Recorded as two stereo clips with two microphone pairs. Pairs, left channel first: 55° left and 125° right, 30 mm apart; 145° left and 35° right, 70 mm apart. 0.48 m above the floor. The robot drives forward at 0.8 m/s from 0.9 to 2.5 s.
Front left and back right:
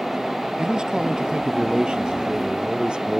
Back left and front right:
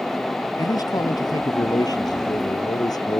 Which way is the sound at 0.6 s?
170° left.